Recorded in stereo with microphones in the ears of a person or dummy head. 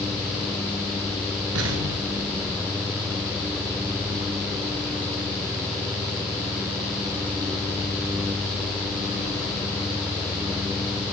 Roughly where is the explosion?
Right.